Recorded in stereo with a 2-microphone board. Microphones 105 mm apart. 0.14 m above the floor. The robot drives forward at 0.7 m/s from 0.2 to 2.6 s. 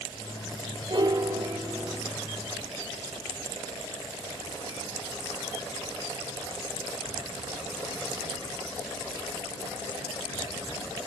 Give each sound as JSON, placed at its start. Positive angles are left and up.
{"t": 0.9, "sound": "a piano", "side_deg": -50, "distance_m": 0.6}